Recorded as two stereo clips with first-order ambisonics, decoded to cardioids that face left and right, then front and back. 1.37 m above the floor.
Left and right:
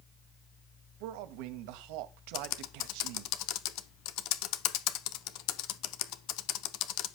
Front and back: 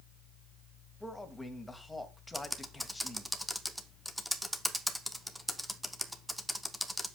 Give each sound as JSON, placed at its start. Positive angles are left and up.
{"t": 1.0, "sound": "a man speaking", "azimuth_deg": -85, "distance_m": 1.7}
{"t": 2.3, "sound": "typing on a keyboard", "azimuth_deg": 90, "distance_m": 0.8}